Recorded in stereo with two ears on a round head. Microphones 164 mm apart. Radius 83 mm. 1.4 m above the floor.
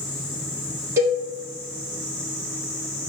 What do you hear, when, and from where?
1.0 s a cowbell: 15° right (ahead or behind), 1.8 m